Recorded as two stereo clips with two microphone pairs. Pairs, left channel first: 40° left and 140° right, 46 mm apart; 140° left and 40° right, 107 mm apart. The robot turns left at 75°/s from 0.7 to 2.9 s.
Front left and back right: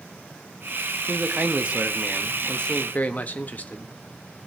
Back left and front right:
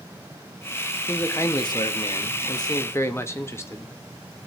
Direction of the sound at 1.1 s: 145° right.